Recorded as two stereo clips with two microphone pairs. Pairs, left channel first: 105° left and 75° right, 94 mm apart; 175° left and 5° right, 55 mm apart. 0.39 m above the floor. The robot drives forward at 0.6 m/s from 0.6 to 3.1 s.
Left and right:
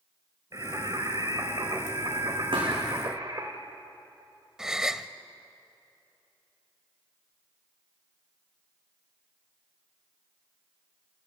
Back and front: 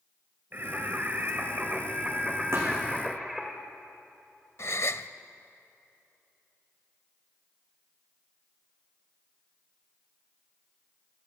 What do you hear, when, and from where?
0.5 s singing: 40° right, 2.5 m; by 3.5 s 95° right, 1.9 m
2.5 s a thud: 45° right, 6.5 m
4.6 s a gasp: 160° right, 0.7 m